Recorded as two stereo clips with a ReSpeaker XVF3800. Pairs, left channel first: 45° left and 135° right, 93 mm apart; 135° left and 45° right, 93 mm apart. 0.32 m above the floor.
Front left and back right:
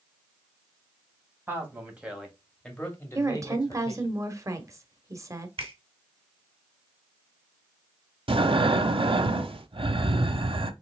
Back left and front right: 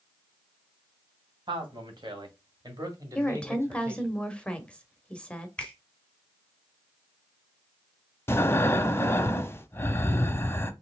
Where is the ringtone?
No ringtone in this recording.